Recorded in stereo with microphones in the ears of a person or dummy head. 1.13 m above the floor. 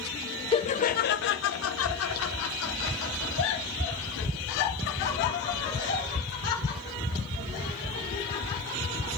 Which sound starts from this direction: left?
Laughter, at 0.5 s.